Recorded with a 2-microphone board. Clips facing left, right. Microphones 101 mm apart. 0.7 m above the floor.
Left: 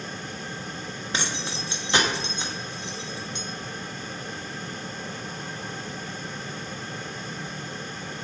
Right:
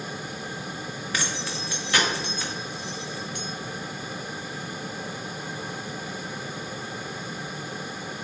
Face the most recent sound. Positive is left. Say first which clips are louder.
# left 1 dB
turn(degrees=25)  # may be behind; listen again after turning